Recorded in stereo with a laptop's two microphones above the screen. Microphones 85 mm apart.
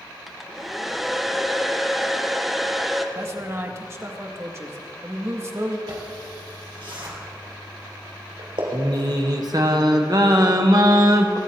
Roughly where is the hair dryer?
Centre.